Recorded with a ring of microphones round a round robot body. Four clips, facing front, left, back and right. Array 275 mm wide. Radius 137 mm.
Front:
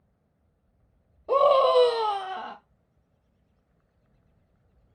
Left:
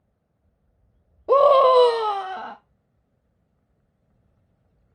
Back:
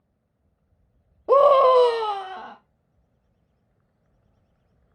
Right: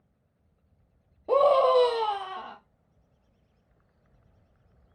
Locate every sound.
1.3 s a scream: 155° left, 1.2 m; by 2.6 s 75° left, 1.1 m